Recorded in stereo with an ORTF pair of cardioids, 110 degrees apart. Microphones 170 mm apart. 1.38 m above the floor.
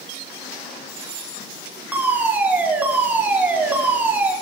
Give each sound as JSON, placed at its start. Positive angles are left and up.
{"t": 1.9, "sound": "a fire alarm", "azimuth_deg": -10, "distance_m": 7.0}